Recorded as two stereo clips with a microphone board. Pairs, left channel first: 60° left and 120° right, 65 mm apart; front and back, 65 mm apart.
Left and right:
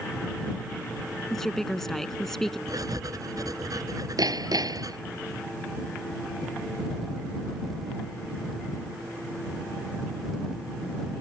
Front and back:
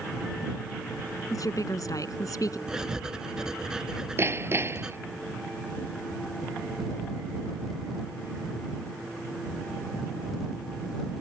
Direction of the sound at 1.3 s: 25° right.